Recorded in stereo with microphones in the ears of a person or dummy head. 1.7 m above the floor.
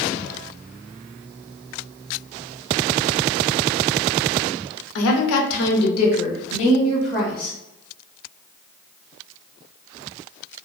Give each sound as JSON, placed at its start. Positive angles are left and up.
{"t": 5.0, "sound": "a woman speaking", "side_deg": 65, "distance_m": 0.6}